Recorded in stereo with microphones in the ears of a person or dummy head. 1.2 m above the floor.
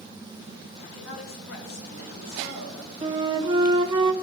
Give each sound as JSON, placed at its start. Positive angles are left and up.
{"t": 0.8, "sound": "a man speaking", "side_deg": 80, "distance_m": 3.0}
{"t": 3.0, "sound": "a flute", "side_deg": -25, "distance_m": 0.6}